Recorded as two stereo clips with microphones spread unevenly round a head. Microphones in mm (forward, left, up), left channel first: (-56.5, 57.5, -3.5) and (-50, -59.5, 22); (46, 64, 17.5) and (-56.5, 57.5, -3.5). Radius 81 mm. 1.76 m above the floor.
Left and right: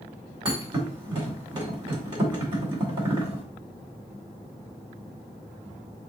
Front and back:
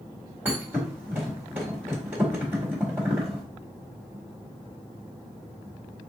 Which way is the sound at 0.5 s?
90° right.